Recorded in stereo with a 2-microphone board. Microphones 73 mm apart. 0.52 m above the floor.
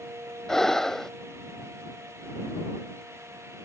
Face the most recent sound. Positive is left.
turn(degrees=5)  # may be behind; listen again after turning